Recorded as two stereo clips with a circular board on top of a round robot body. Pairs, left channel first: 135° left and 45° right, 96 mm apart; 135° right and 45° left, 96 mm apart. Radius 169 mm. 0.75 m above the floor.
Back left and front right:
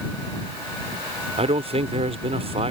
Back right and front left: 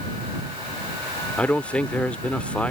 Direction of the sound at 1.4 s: 55° right.